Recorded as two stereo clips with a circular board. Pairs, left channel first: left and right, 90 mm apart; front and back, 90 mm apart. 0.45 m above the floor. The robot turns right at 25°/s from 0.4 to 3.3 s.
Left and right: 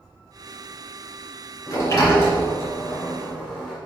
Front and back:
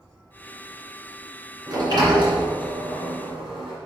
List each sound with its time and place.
1.7 s a sliding door: 130° left, 2.5 m; by 3.8 s 175° left, 2.5 m